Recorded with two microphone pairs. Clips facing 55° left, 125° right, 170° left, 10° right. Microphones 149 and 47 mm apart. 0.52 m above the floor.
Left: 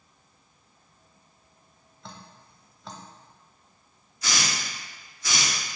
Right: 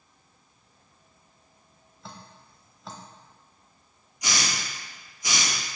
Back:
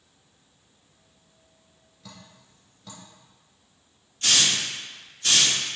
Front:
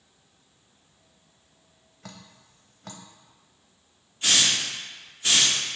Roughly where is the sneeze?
I don't hear a sneeze.